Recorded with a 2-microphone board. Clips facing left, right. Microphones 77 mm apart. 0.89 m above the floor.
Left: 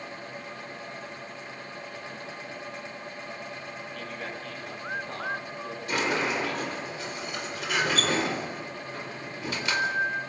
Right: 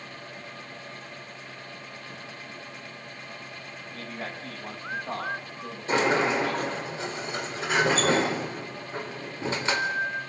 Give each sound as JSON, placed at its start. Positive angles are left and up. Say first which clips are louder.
{"t": 3.9, "sound": "a man speaking", "louder": "right 2 dB", "side_deg": -30, "distance_m": 7.0}
{"t": 5.9, "sound": "a sliding door", "louder": "right 5 dB", "side_deg": -30, "distance_m": 4.0}